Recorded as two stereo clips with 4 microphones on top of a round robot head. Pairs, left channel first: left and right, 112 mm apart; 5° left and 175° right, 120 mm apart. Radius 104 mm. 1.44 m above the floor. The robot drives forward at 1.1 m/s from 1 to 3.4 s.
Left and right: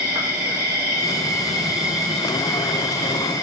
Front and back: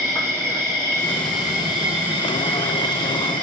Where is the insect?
50° right, 1.4 m; by 3.4 s 165° right, 2.5 m.